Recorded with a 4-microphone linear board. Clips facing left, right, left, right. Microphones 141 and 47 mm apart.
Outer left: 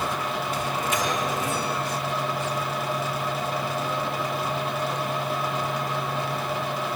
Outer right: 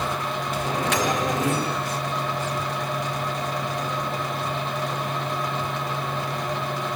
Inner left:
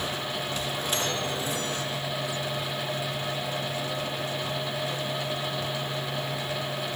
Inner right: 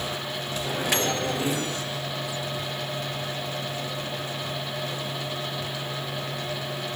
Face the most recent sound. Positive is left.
turn(degrees=-75)  # may be behind; listen again after turning